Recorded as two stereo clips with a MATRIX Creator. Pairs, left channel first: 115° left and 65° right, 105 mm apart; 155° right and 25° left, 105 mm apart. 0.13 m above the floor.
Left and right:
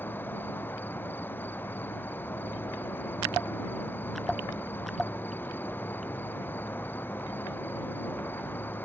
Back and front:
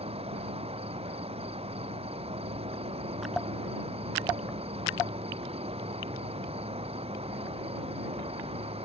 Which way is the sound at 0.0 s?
40° left.